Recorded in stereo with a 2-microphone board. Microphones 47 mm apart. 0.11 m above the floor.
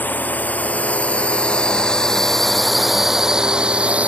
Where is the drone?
40° left (ahead or behind); by 4.1 s 30° right (ahead or behind).